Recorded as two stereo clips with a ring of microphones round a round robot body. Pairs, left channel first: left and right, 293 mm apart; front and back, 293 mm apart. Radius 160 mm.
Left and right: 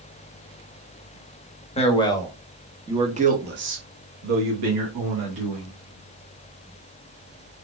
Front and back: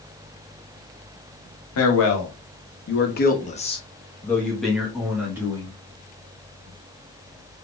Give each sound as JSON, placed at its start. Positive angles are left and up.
{"t": 1.8, "sound": "a man speaking", "azimuth_deg": 25, "distance_m": 1.1}